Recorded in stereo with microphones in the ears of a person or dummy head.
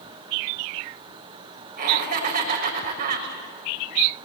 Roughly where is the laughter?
Right.